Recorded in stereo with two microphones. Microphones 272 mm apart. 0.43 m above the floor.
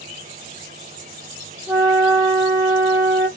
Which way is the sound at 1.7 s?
10° right (ahead or behind).